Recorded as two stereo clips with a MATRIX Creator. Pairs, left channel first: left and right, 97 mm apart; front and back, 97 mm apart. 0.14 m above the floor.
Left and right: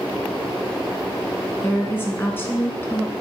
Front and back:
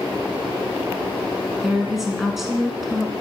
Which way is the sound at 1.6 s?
95° left.